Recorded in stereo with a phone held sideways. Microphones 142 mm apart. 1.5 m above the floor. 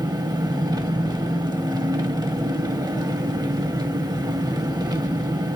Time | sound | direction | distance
0.0 | an engine running | 30° right (ahead or behind) | 1.1 m